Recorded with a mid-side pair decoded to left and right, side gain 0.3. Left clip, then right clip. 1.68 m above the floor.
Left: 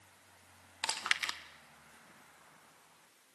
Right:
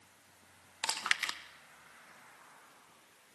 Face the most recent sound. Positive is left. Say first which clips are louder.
# right 1 dB
turn(degrees=-20)